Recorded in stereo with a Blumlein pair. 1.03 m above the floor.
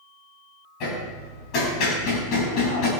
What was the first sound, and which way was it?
Hammering, 40° left.